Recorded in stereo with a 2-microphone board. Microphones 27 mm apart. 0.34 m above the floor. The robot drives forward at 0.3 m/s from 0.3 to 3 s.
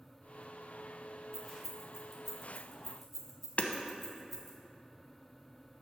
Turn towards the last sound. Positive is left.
turn(degrees=60)  # may be behind; listen again after turning